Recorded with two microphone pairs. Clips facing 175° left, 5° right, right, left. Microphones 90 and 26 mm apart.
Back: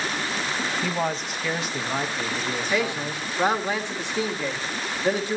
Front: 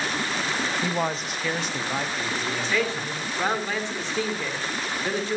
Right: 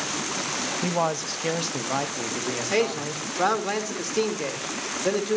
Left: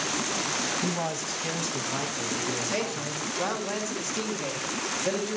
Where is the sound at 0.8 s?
85° right, 0.9 m; by 3.7 s 110° right, 2.5 m.